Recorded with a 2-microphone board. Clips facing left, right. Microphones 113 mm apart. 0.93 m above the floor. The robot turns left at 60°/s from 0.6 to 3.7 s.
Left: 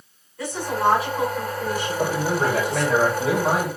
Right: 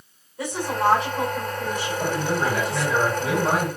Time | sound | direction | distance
0.4 | a woman speaking | 160° right | 3 m
2.0 | a man speaking | 110° left | 3 m